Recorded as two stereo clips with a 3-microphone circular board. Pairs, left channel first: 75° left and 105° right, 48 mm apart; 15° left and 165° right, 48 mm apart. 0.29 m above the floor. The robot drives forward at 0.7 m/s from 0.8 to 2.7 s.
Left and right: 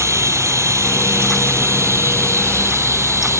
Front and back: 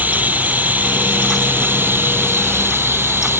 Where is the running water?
110° right; by 3.4 s 125° right.